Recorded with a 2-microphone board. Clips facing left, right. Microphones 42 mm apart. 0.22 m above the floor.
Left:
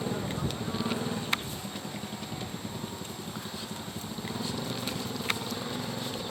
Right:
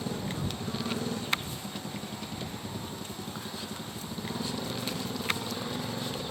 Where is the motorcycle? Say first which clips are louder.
Left 2 dB; 25° left (ahead or behind); by 6.3 s centre (ahead or behind).